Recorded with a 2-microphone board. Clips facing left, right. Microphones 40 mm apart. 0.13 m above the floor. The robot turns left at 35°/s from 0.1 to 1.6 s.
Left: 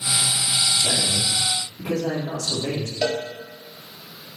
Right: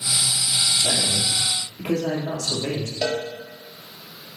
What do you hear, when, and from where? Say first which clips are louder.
0.7 s a man speaking: even; 65° right, 4 m; by 2.9 s 95° right, 4 m
3.0 s a cowbell: left 1 dB; 10° left (ahead or behind), 2 m